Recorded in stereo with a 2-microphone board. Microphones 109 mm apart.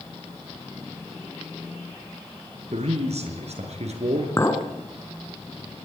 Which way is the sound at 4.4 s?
25° left (ahead or behind).